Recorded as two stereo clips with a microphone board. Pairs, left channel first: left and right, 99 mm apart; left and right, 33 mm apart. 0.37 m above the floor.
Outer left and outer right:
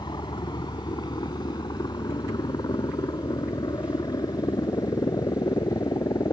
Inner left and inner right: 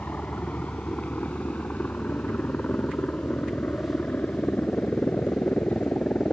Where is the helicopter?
45° left (ahead or behind); by 6.3 s 40° left (ahead or behind).